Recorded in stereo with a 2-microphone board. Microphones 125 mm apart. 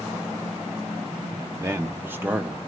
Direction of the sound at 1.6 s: 20° right (ahead or behind).